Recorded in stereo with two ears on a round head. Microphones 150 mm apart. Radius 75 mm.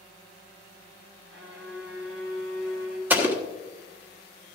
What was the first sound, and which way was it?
A violin, 75° right (ahead or behind).